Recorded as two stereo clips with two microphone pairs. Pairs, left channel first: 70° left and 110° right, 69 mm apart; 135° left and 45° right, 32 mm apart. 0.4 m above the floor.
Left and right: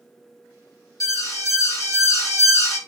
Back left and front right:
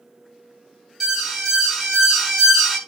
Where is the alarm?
35° left, 3.5 m.